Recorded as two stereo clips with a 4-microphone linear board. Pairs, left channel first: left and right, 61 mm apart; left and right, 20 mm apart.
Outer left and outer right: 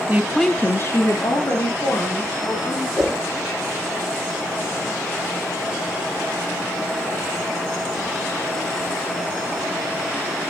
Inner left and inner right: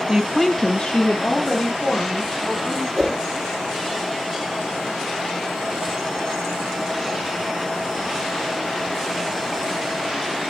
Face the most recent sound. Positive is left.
turn(degrees=-10)  # may be behind; listen again after turning